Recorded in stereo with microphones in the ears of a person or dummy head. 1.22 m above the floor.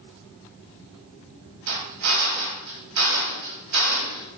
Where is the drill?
80° right, 6.5 m.